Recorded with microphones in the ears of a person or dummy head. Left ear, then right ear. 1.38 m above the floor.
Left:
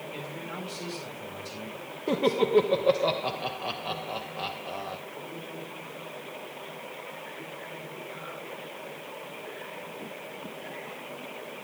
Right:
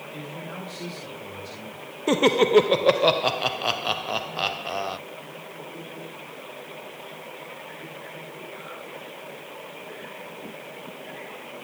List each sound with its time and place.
0.1 s a man speaking: 10° right (ahead or behind), 7 m
2.1 s laughter: 65° right (ahead or behind), 0.6 m